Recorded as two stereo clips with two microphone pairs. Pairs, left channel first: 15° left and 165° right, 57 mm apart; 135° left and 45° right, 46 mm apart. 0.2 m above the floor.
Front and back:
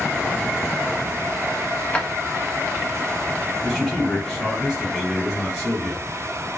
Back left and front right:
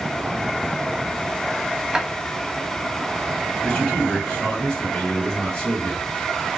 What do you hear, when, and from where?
1.9 s a drawer: straight ahead, 0.6 m
3.6 s a man speaking: 115° left, 1.1 m